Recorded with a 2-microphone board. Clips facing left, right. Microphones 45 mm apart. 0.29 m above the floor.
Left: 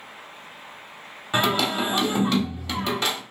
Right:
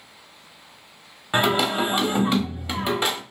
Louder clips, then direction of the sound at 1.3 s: Right 2 dB; 15° right (ahead or behind).